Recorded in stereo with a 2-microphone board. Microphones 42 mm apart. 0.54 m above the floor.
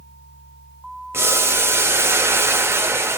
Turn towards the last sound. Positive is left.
turn(degrees=-75)  # may be behind; listen again after turning